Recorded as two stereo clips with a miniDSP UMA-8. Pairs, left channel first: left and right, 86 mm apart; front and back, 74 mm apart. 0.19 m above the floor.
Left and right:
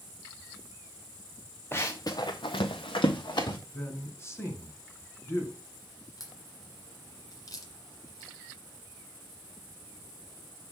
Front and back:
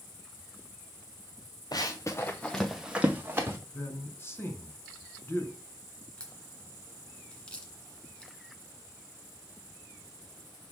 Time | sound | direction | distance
1.7 | running footsteps | 30° left | 1.5 m
3.7 | a man speaking | 45° left | 1.8 m
6.2 | a crack | 70° left | 1.5 m